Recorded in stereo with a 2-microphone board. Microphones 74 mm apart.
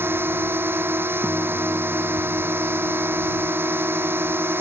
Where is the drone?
30° right (ahead or behind).